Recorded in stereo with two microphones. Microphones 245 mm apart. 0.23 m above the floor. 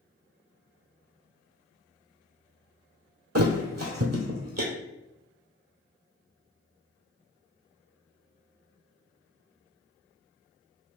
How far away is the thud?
About 0.9 m.